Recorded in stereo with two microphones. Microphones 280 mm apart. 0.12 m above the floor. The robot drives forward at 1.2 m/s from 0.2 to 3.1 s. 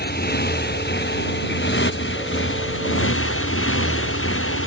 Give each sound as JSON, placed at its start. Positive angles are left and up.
{"t": 0.0, "sound": "a motorcycle", "side_deg": 35}